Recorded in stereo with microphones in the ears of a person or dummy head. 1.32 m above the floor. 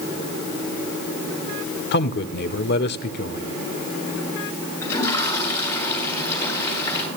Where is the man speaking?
60° left (ahead or behind), 1.0 m.